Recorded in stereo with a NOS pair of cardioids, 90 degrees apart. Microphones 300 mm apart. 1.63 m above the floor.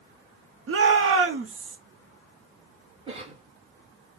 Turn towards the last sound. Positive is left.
turn(degrees=-15)